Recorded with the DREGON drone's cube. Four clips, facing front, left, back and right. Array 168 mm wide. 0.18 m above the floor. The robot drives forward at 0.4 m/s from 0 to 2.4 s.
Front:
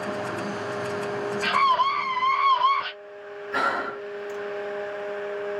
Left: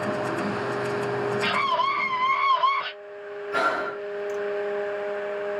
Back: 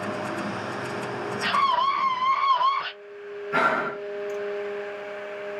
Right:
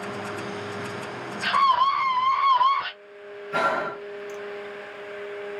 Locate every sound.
1.4 s a scream: 100° right, 2 m; by 2.9 s 115° right, 2 m
3.5 s breathing: straight behind, 0.9 m